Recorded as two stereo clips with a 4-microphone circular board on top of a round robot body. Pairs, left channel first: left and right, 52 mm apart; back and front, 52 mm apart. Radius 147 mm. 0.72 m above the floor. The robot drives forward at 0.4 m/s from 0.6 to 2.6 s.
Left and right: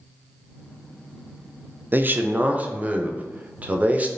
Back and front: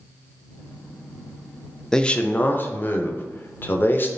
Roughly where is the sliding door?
I don't hear a sliding door.